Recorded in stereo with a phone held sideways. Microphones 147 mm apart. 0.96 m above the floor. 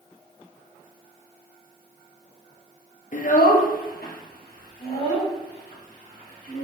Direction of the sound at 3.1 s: 60° left (ahead or behind).